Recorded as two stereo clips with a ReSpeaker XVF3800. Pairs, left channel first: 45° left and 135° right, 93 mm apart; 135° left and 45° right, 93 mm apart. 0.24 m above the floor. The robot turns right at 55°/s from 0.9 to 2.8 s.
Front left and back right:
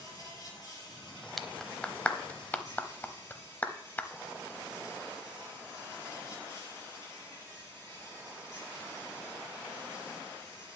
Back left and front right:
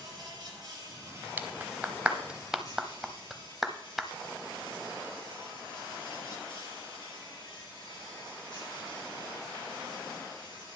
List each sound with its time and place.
0.0 s an insect: straight ahead, 6 m; by 10.8 s 100° left, 6 m
1.4 s a clap: 40° right, 0.7 m; by 4.1 s 40° left, 0.7 m